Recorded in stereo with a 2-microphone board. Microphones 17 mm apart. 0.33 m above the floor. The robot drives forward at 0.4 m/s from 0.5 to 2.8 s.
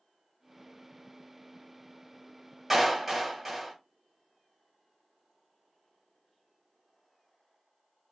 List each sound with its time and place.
2.7 s a clap: 15° right (ahead or behind), 1.4 m